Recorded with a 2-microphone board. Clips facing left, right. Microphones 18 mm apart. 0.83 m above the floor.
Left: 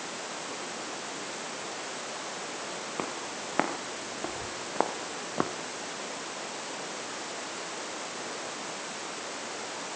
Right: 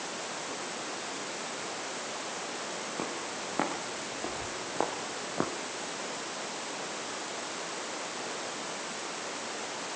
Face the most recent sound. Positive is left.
turn(degrees=35)  # may be behind; listen again after turning